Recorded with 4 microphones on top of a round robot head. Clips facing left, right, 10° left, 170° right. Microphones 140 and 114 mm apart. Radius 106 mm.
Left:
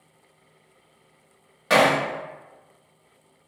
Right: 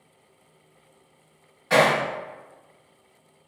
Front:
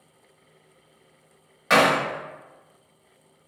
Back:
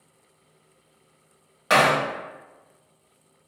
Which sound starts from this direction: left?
Hammering, at 1.7 s.